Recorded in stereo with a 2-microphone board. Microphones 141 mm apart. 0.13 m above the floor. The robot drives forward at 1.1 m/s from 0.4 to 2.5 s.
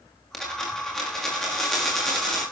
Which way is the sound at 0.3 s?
5° left (ahead or behind).